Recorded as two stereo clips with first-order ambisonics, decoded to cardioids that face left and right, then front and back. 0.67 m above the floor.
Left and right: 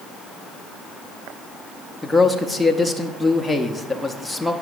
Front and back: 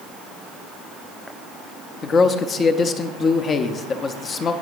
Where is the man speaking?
5° left, 0.6 m.